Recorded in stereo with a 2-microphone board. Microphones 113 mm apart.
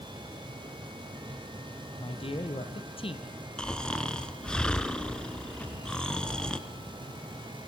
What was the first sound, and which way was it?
A man speaking, 55° left (ahead or behind).